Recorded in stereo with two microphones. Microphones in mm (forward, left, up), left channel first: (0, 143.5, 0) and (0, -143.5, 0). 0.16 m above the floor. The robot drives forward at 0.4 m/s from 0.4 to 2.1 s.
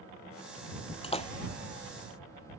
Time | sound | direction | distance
1.0 | a splash | 20° left (ahead or behind) | ?